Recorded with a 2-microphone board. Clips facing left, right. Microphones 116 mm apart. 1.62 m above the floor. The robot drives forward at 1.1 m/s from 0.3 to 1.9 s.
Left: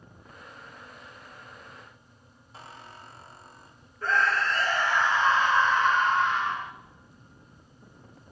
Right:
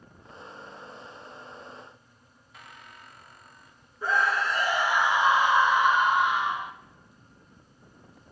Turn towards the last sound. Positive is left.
turn(degrees=-15)  # may be behind; listen again after turning